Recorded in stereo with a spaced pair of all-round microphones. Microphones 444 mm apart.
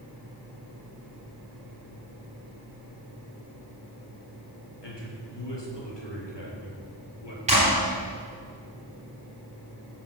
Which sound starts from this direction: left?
A man speaking, at 4.8 s.